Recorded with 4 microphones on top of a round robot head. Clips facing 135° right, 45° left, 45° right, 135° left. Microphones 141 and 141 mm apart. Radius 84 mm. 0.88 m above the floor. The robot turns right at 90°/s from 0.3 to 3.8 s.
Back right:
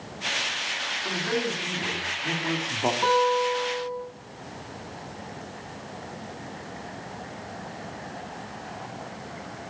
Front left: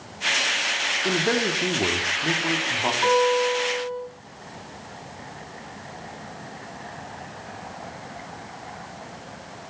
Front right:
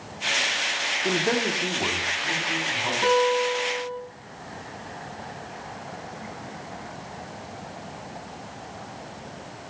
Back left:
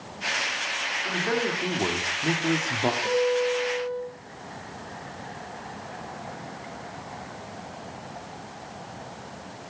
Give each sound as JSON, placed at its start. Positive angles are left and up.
{"t": 1.1, "sound": "a man speaking", "azimuth_deg": -5, "distance_m": 2.5}
{"t": 3.0, "sound": "a guitar", "azimuth_deg": -65, "distance_m": 7.5}